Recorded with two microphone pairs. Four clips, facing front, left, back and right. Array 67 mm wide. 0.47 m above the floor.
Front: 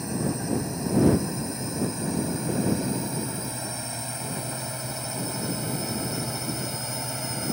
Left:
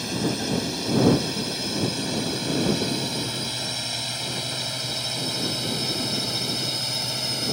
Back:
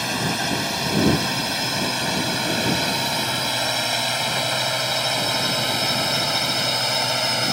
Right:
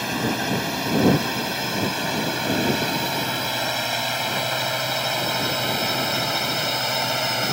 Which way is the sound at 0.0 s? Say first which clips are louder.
Right 3 dB, back 5 dB; 145° right.